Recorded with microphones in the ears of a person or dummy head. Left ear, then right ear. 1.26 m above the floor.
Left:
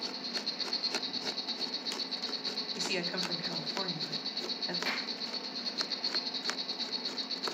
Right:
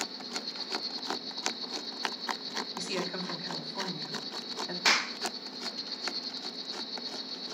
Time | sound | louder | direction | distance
0.0 | an insect | left 1 dB | 30° left (ahead or behind) | 2.5 m
2.8 | a woman speaking | left 2 dB | 5° left (ahead or behind) | 3 m
4.8 | a clap | right 8 dB | 45° right (ahead or behind) | 0.6 m